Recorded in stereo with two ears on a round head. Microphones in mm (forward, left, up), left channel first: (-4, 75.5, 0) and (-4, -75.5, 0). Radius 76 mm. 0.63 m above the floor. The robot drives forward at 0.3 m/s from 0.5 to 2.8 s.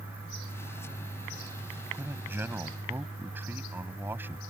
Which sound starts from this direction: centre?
A man speaking, at 1.9 s.